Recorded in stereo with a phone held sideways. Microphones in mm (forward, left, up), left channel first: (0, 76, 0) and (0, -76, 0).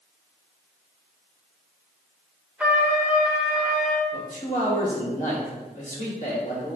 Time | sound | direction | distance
2.6 | a trumpet | 10° right (ahead or behind) | 0.5 m
4.1 | a man speaking | 55° left (ahead or behind) | 1.4 m